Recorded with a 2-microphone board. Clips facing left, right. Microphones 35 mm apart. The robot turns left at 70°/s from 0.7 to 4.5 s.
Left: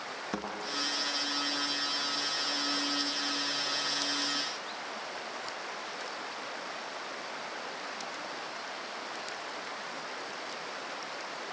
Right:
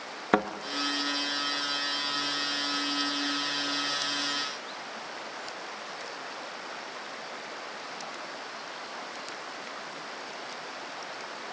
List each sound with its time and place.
0.3 s a thud: 55° right (ahead or behind), 2 m